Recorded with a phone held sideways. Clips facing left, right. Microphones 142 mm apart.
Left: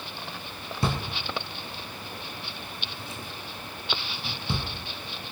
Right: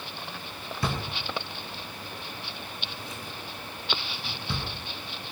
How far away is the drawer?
About 4 m.